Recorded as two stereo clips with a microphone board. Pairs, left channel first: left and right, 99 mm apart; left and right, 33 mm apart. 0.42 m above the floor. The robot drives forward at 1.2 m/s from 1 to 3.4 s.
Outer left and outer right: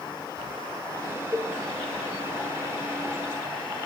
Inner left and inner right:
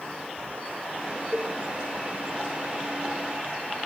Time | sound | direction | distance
1.3 | a cowbell | 35° right (ahead or behind) | 1.6 m